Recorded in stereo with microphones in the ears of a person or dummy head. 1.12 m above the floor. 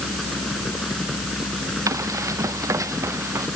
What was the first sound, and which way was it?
A fan, 5° right (ahead or behind).